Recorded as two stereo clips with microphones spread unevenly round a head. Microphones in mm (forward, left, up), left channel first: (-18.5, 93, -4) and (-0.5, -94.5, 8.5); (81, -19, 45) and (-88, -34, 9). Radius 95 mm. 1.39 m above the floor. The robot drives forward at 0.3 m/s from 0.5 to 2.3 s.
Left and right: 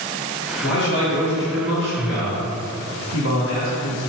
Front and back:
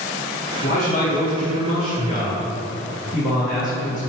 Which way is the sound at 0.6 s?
60° left.